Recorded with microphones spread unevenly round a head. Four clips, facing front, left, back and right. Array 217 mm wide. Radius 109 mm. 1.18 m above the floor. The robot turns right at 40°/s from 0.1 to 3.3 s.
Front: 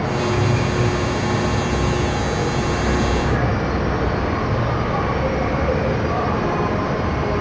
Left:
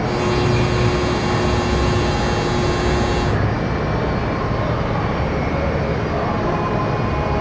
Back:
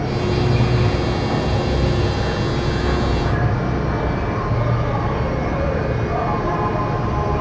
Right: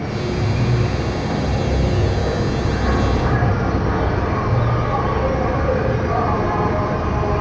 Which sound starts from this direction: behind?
An insect, at 0.0 s.